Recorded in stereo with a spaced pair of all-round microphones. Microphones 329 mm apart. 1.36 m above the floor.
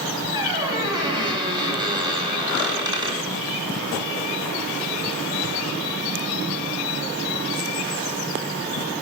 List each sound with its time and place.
0.3 s a squeak: 15° right (ahead or behind), 1.1 m